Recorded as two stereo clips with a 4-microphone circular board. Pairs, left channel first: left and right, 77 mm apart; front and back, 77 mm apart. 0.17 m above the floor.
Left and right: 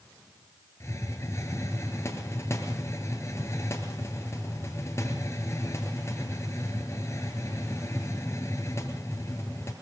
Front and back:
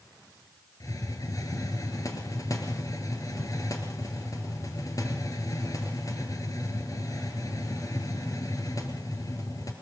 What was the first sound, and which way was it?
A hiss, 40° left.